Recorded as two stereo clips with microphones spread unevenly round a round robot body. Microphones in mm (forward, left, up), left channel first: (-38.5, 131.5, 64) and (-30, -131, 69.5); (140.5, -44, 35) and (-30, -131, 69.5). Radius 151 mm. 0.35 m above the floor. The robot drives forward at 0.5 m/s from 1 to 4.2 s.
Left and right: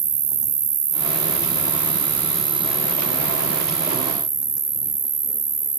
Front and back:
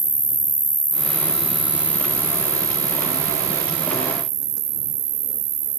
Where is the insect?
75° right; by 5.8 s 155° right.